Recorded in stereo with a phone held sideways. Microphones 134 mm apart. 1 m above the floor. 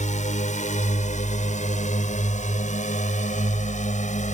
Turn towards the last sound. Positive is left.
turn(degrees=65)  # may be behind; listen again after turning